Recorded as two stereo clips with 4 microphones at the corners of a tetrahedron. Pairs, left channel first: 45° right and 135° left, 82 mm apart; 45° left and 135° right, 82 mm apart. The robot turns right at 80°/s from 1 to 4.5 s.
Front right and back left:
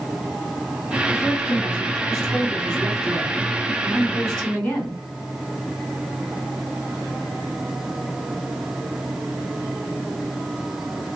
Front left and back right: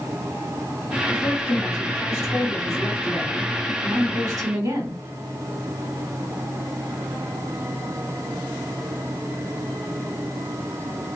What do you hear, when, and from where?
1.1 s a woman speaking: 30° right, 2.0 m; by 5.0 s 120° right, 2.0 m